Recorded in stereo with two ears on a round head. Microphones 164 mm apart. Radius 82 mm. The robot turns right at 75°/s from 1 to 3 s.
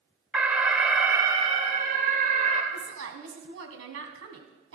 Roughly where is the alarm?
Behind.